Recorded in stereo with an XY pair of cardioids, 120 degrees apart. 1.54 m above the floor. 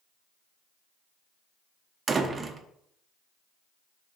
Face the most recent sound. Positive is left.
turn(degrees=-30)